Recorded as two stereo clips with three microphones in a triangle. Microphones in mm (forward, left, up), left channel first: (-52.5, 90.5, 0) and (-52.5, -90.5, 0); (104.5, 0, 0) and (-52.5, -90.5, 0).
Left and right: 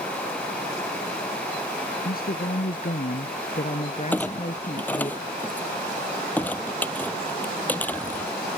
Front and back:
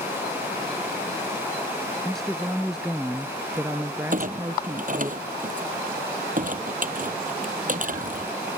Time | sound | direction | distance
2.0 | a woman speaking | 115° left | ?
4.1 | a clunk | 170° left | ?